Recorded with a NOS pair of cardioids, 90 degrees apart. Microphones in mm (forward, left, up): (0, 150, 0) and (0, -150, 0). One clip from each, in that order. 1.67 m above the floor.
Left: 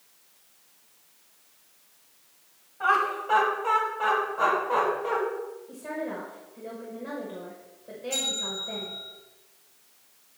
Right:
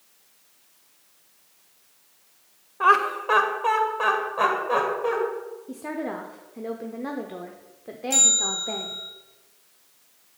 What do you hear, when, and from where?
2.8 s laughter: 50° right, 1.0 m; by 5.2 s 75° right, 3 m
5.7 s a woman speaking: 55° right, 0.8 m
8.1 s a bell: 70° right, 2 m